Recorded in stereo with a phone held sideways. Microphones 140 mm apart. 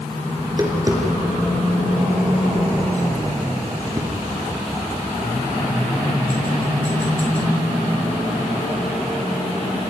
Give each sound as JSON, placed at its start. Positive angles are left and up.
{"t": 0.4, "sound": "tapping", "side_deg": -25, "distance_m": 4.5}